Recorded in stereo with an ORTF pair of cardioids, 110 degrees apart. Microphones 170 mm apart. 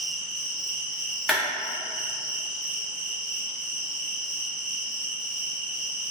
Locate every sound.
0.0 s an insect: 5° right, 0.8 m
1.3 s a clap: straight ahead, 0.9 m